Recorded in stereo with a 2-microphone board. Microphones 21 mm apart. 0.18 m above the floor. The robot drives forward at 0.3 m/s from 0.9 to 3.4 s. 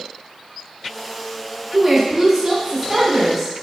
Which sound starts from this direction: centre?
A woman speaking, at 1.7 s.